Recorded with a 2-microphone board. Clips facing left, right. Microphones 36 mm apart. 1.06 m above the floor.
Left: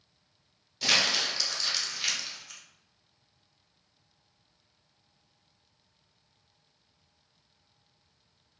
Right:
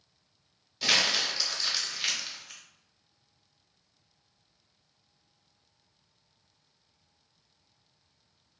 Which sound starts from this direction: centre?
Crumpling, at 0.8 s.